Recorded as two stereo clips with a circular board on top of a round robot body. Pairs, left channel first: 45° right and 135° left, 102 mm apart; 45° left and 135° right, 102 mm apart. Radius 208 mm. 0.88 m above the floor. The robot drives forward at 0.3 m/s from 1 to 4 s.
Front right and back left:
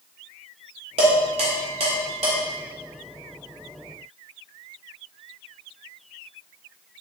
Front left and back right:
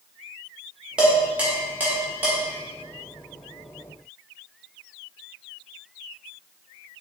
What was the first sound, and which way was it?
Dishes clattering, 145° left.